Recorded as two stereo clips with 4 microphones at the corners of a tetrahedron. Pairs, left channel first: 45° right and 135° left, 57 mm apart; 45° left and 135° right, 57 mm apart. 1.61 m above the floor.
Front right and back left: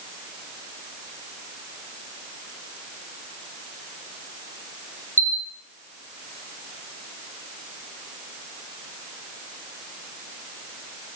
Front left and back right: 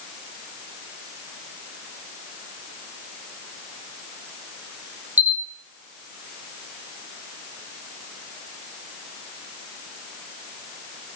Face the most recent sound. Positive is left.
turn(degrees=165)